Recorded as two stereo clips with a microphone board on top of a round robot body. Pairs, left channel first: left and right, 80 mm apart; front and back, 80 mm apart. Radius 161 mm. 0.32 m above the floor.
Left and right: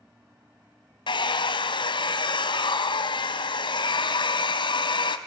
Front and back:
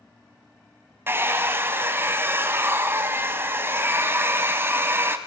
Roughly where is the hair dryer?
Behind left.